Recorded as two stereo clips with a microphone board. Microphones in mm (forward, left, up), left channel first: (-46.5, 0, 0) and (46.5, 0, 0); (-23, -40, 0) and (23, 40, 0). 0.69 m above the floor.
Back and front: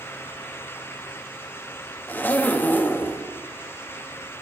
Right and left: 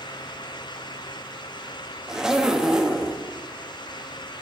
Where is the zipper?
135° left, 0.7 m.